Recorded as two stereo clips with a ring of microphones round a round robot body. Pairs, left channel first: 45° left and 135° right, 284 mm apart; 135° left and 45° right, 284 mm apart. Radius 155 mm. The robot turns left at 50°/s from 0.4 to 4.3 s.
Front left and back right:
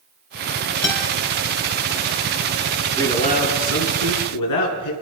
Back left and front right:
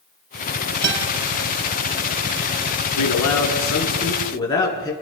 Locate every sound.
0.8 s a guitar: 5° left, 3 m; by 1.1 s 10° right, 3 m
3.0 s a man speaking: 125° left, 5 m; by 4.9 s 60° left, 5 m